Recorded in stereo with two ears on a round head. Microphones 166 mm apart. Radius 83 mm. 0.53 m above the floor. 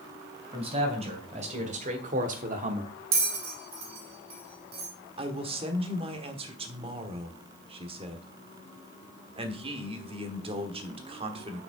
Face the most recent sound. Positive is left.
turn(degrees=-30)  # may be behind; listen again after turning